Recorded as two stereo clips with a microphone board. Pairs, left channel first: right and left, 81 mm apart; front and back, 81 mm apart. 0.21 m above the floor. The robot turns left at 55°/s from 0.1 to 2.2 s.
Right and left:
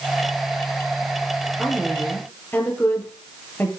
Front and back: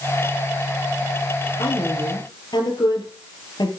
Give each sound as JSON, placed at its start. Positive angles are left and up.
{"t": 1.6, "sound": "a woman speaking", "azimuth_deg": 10, "distance_m": 6.0}